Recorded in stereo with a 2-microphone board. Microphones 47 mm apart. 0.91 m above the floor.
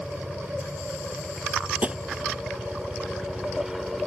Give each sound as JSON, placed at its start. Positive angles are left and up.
{"t": 0.0, "sound": "a helicopter", "side_deg": -35}
{"t": 1.8, "sound": "tapping", "side_deg": -30}